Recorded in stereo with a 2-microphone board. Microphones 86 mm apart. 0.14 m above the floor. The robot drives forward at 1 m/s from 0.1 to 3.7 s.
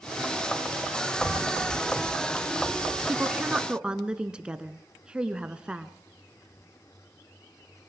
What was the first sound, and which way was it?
Footsteps, 75° right (ahead or behind).